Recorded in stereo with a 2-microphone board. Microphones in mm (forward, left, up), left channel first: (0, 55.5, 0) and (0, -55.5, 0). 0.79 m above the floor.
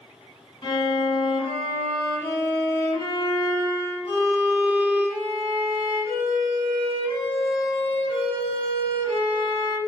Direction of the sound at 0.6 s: 45° left (ahead or behind).